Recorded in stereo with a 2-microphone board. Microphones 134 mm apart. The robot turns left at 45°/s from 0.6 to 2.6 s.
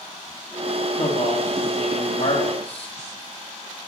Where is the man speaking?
120° left, 8.5 m; by 3.0 s 45° left, 8.5 m.